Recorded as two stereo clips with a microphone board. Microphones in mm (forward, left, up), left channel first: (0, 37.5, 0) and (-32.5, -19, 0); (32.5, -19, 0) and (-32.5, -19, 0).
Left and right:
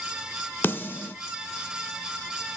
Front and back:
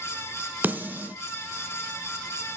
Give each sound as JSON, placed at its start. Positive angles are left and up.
{"t": 0.6, "sound": "a snare drum", "azimuth_deg": 120, "distance_m": 1.1}